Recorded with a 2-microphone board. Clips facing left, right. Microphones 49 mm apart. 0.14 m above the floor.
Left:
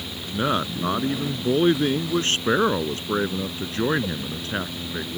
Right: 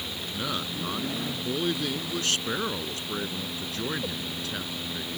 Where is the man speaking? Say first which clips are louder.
Left 9 dB; 35° left (ahead or behind).